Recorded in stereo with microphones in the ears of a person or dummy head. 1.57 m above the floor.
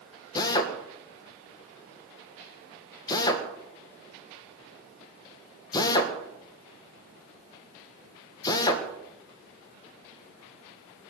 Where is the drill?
20° left (ahead or behind), 1.8 m.